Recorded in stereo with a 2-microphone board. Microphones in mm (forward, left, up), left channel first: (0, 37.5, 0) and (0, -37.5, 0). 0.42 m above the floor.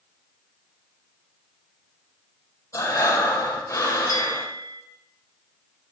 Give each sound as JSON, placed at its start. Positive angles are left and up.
{"t": 2.7, "sound": "breathing", "side_deg": 45, "distance_m": 4.0}
{"t": 4.1, "sound": "a bell", "side_deg": -80, "distance_m": 3.0}